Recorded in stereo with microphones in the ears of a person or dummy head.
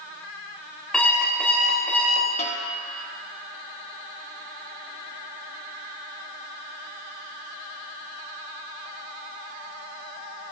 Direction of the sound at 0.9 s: Centre (ahead or behind).